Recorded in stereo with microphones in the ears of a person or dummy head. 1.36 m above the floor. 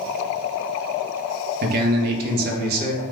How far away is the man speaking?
About 0.6 m.